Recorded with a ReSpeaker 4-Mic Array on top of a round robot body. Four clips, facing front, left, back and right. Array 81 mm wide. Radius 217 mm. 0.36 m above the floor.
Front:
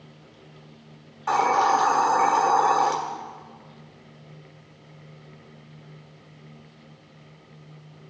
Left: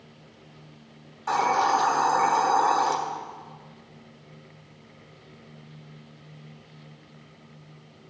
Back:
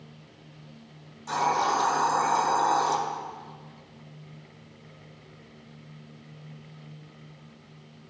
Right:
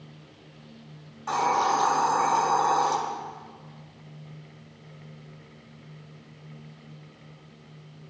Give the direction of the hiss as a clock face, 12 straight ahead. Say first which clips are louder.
Left 1 dB, front 5 dB; 12 o'clock.